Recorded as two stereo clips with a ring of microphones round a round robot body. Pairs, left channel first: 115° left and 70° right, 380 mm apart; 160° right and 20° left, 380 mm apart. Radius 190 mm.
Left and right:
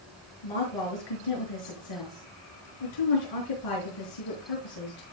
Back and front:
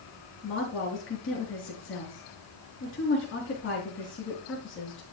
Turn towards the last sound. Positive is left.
turn(degrees=140)